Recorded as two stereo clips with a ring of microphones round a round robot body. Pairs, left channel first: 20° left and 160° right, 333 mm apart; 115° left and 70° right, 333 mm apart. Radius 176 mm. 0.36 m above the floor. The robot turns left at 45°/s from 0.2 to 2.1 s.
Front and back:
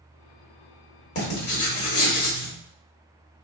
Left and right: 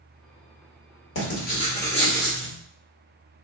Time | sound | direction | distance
1.1 | writing | 65° left | 1.3 m